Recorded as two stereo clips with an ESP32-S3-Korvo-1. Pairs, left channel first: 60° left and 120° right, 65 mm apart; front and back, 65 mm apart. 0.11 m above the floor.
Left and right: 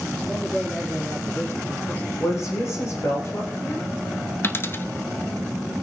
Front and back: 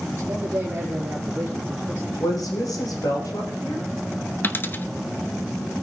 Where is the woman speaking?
20° left, 7 m.